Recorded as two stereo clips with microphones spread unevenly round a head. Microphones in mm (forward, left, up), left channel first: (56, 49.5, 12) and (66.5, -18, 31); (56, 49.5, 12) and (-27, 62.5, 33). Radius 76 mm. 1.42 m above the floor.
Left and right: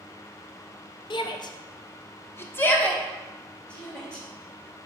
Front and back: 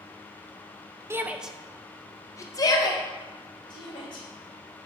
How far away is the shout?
About 0.9 m.